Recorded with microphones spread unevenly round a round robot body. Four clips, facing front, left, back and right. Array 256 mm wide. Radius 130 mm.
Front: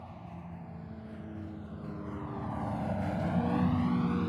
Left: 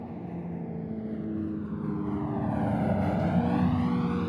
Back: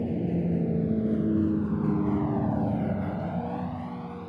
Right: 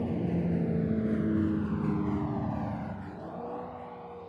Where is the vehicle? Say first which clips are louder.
Right 7 dB, back 18 dB; 160° right; by 4.3 s 60° left.